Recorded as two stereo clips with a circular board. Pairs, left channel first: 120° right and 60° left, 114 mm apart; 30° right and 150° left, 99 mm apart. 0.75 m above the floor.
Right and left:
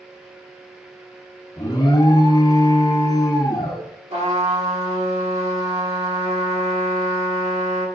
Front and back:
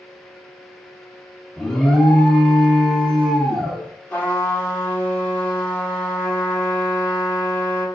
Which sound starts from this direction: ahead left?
A trumpet, at 4.1 s.